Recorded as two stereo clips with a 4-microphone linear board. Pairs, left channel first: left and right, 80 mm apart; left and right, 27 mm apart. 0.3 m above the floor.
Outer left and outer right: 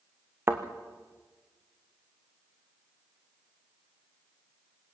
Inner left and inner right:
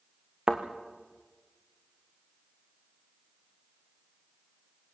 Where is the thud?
30° right (ahead or behind), 2.5 m.